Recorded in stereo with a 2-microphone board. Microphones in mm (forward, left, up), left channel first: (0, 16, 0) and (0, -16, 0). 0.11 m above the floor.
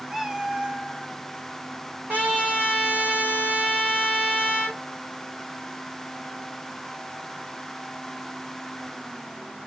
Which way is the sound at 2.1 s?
65° right (ahead or behind).